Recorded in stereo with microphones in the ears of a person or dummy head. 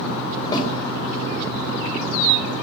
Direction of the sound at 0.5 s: 25° left (ahead or behind).